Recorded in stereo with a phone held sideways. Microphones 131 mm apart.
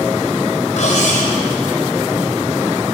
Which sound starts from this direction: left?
Cutlery clinking, at 0.8 s.